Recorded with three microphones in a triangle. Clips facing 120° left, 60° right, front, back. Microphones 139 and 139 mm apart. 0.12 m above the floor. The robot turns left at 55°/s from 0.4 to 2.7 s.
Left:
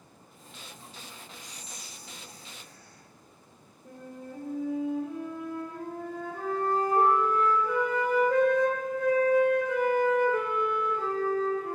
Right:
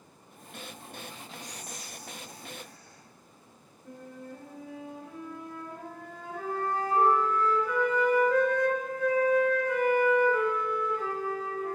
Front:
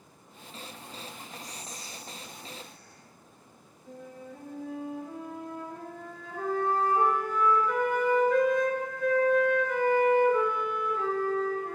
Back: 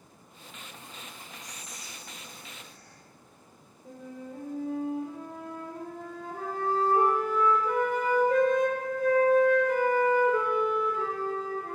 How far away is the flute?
About 1.4 m.